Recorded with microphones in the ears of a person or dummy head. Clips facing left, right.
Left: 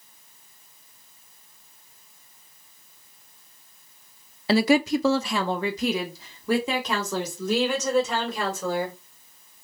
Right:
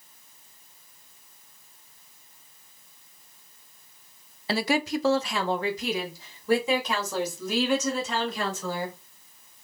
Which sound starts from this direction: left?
A woman speaking, at 4.5 s.